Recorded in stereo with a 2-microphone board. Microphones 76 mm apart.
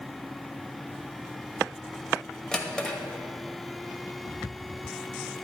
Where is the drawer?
10° left (ahead or behind), 1.1 m.